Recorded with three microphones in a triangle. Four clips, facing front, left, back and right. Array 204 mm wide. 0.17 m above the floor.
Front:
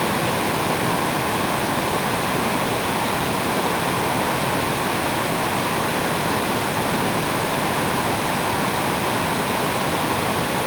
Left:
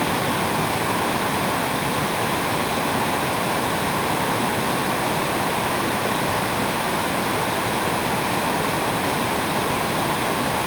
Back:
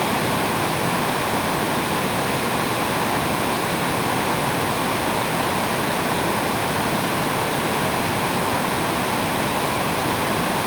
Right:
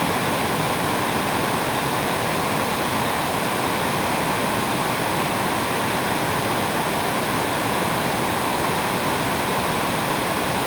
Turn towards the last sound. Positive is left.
No sound to turn to.